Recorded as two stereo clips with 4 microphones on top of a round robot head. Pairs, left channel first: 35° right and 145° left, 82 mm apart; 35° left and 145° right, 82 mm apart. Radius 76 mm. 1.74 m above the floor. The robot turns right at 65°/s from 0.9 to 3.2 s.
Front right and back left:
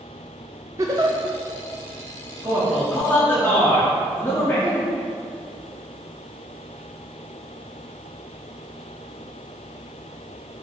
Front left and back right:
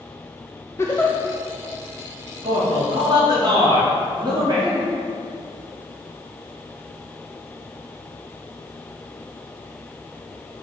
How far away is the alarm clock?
No alarm clock in this recording.